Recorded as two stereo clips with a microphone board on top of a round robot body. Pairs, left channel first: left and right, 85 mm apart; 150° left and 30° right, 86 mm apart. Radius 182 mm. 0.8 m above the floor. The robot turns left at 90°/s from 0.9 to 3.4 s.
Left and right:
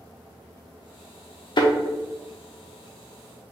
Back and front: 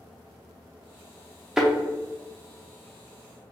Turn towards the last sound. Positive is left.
turn(degrees=-110)